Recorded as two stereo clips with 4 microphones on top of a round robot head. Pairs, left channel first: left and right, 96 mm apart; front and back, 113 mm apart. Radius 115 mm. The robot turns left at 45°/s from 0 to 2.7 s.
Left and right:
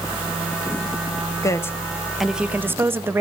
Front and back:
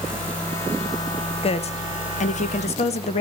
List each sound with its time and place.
1.4 s a woman speaking: 35° left, 1.5 m; by 3.2 s 25° right, 1.5 m